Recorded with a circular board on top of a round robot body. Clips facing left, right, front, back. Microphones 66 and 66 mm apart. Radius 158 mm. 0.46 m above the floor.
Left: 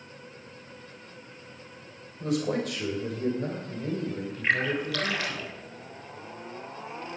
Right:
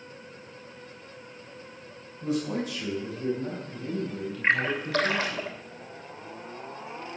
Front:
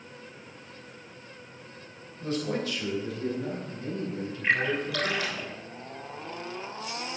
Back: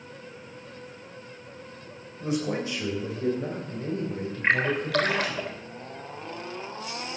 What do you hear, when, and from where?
2.2 s a man speaking: 105° left, 3.5 m; by 5.4 s 155° left, 3.5 m
4.4 s a splash: 150° right, 3 m